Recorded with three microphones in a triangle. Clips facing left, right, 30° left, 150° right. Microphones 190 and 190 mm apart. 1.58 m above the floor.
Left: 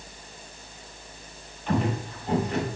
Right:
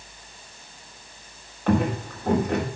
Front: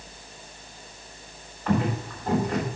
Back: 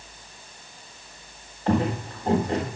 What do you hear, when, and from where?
1.7 s footsteps: 90° right, 4 m